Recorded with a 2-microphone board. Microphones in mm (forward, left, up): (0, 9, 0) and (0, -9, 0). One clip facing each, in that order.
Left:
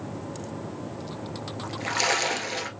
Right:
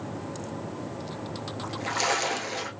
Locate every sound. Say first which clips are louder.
1.6 s a splash: left 2 dB; 25° left (ahead or behind), 0.8 m